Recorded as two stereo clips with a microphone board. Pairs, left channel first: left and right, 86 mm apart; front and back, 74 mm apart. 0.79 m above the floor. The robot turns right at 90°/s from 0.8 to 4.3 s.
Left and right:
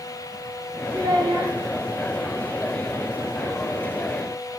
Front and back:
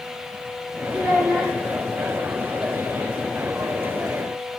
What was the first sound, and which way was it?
A child speaking, 135° right.